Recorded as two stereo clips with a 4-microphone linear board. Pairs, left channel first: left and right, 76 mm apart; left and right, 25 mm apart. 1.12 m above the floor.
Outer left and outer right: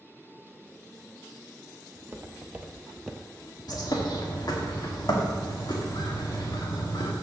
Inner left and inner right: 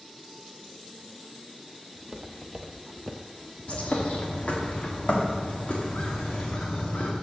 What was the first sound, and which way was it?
Footsteps, 35° right (ahead or behind).